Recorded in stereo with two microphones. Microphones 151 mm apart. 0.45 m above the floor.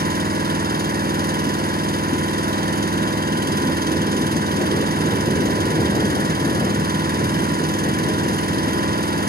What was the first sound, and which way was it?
An engine running, 70° right (ahead or behind).